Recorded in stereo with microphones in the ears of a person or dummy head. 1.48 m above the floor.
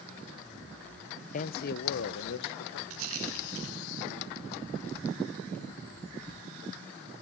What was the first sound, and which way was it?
A man speaking, 40° left (ahead or behind).